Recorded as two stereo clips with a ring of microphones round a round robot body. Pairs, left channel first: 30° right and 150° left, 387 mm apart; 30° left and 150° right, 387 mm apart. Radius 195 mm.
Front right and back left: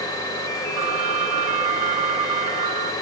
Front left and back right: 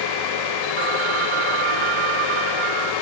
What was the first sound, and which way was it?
A phone ringing, 170° right.